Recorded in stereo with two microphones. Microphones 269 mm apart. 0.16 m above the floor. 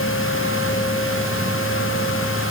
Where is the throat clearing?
No throat clearing in this recording.